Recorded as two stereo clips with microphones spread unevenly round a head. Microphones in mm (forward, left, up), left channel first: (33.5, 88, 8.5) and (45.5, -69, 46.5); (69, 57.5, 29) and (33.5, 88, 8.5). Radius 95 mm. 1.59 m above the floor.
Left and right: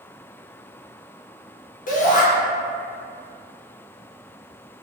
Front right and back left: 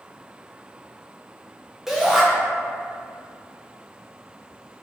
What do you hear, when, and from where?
1.9 s a shout: 55° left, 0.9 m